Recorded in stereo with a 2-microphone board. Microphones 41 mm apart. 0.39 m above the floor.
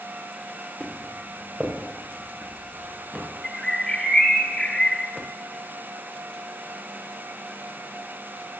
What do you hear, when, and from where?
0.8 s footsteps: 25° right (ahead or behind), 4 m; by 3.2 s 15° right (ahead or behind), 5.5 m
3.4 s a bird: 10° left (ahead or behind), 1.0 m